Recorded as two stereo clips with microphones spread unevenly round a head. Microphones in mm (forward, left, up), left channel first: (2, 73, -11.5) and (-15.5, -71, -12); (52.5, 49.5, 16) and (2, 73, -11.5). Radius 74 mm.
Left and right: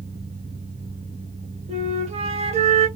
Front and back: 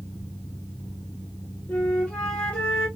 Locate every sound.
0.0 s a fan: 105° right, 0.8 m
1.7 s a flute: 65° right, 1.1 m